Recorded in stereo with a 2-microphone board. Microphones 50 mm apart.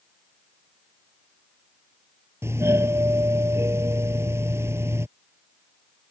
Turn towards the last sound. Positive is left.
turn(degrees=-60)  # may be behind; listen again after turning